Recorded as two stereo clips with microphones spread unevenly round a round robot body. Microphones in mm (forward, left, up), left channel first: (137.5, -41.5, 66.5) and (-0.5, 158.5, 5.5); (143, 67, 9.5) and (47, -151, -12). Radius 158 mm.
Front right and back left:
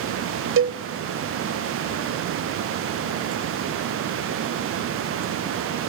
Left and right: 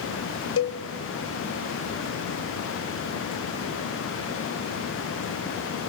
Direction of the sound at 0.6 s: 110° left.